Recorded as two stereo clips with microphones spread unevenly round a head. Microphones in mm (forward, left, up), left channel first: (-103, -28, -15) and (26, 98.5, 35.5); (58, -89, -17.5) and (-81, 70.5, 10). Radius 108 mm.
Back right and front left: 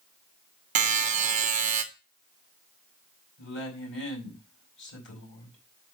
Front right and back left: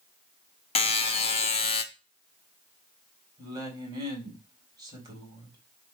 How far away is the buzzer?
About 1.0 m.